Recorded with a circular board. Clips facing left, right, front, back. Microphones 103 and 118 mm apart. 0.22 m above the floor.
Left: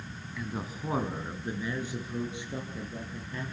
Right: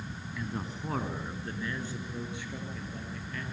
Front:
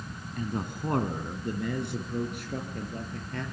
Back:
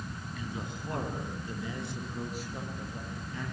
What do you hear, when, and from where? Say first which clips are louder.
0.4 s a man speaking: left 1 dB, front 8 dB; 5° left, 2 m; by 3.4 s 25° left, 6 m